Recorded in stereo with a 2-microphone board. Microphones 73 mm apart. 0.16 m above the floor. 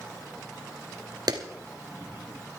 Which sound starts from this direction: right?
A clap, at 1.3 s.